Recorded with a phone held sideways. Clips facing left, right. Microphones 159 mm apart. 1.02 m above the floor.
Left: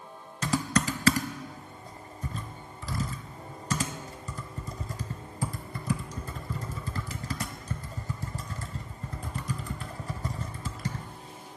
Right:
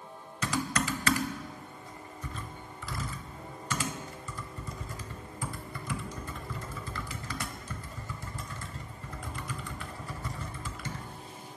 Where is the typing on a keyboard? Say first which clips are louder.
Left 4 dB; 40° left (ahead or behind), 1.0 m.